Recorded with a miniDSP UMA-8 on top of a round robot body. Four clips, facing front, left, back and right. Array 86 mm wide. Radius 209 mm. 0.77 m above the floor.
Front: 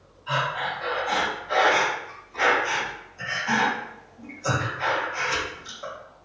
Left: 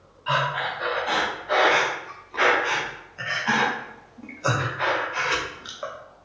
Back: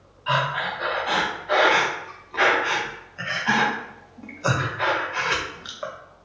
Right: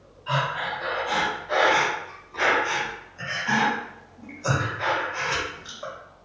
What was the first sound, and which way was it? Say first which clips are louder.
Breathing: left 2 dB, back 3 dB; 150° left.